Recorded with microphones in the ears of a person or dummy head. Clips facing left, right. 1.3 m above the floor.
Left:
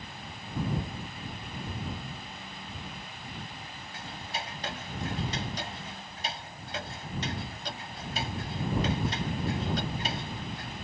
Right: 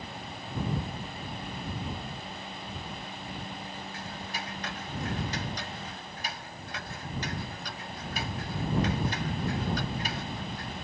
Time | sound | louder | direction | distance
3.9 | ticking | right 1 dB | 30° left (ahead or behind) | ?